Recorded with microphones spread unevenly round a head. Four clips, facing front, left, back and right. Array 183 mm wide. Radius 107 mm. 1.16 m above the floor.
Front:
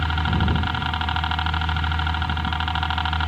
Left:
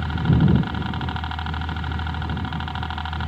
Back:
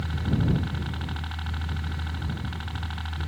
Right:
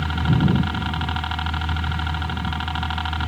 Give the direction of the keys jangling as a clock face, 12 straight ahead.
No keys jangling in this recording.